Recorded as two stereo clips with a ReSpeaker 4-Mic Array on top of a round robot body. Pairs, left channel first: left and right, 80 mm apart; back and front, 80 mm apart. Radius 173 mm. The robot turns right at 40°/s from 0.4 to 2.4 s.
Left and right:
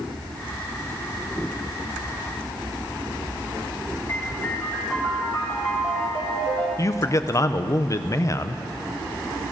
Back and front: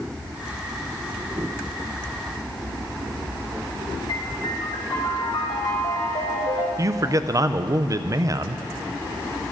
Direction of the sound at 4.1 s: 160° left.